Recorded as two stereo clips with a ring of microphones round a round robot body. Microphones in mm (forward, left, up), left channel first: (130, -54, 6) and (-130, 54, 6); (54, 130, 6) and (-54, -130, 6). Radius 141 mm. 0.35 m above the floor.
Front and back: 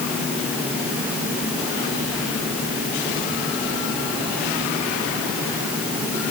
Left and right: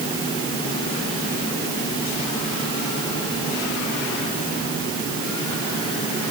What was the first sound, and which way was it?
Only background noise.